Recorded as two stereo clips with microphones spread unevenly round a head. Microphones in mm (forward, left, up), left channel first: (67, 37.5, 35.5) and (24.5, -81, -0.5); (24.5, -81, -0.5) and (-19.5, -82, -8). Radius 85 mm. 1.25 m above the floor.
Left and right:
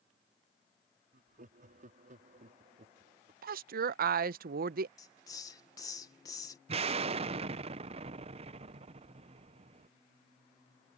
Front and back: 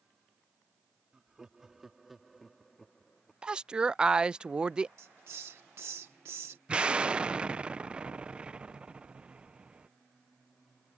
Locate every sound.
1.1 s laughter: 105° right; by 3.3 s 75° right
3.4 s a woman speaking: 105° right
5.0 s a hiss: 145° left
6.7 s an explosion: 120° right